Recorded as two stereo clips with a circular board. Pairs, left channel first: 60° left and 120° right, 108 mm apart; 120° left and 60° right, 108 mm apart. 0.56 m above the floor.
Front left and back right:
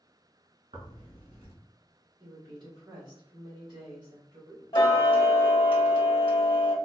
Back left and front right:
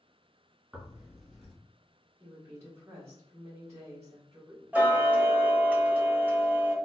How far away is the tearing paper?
About 1.3 m.